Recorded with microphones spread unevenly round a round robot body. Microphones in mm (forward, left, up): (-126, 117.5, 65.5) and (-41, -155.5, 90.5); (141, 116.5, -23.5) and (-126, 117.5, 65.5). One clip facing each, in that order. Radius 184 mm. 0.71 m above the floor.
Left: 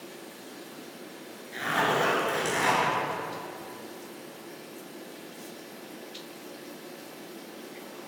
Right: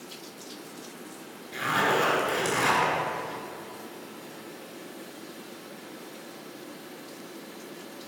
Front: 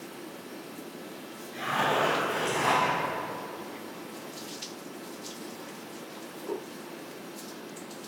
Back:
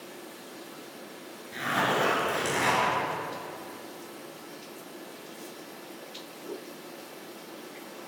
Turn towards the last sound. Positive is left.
turn(degrees=-150)